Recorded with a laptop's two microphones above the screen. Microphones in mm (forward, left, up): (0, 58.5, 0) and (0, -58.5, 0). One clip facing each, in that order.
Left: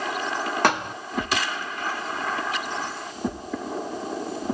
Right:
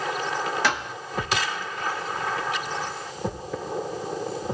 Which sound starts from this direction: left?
A thud, at 0.6 s.